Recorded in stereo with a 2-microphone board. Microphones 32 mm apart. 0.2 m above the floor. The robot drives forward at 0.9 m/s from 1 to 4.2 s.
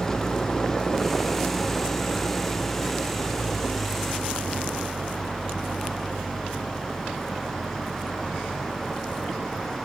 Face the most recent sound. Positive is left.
turn(degrees=15)  # may be behind; listen again after turning